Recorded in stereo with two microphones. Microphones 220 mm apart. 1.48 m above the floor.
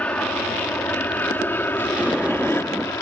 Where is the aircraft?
5° left (ahead or behind); by 3.0 s 10° left (ahead or behind).